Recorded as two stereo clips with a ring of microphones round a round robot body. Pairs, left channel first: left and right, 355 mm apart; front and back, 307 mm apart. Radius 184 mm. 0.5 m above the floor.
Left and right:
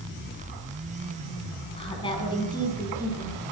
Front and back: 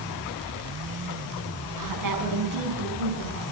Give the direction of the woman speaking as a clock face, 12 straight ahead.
7 o'clock.